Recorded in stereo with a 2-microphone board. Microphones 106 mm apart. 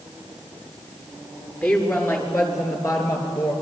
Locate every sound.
1.6 s a woman speaking: 20° left (ahead or behind), 4.5 m; by 3.5 s 35° left (ahead or behind), 4.5 m